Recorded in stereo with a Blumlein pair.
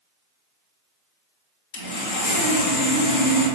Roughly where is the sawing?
Ahead left.